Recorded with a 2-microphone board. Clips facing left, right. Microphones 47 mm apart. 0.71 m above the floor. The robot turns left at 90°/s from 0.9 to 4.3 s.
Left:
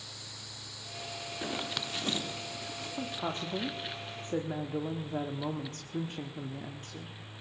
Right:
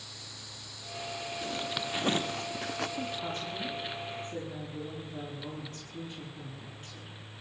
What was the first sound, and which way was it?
A zipper, 30° left (ahead or behind).